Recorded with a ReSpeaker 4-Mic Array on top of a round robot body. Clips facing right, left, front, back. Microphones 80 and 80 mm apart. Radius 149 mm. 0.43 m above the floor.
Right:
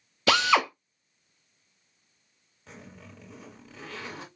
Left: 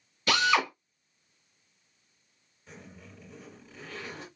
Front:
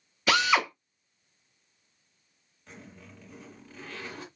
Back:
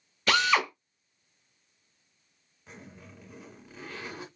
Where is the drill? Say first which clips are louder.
Right 3 dB, front 1 dB; 90° right, 1.1 m.